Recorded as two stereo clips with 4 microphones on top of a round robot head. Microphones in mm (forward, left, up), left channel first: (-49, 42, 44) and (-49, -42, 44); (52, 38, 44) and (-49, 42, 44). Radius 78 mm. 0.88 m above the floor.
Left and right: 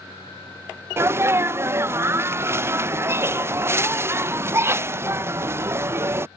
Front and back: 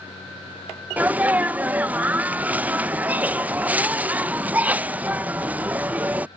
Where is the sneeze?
120° right.